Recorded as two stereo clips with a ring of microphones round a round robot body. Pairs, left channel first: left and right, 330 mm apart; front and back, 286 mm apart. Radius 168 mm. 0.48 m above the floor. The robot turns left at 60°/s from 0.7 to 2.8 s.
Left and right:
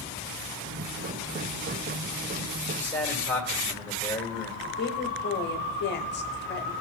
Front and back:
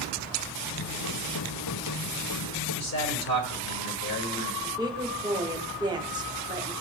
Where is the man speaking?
10° left, 2.0 m; by 4.5 s 5° left, 2.0 m.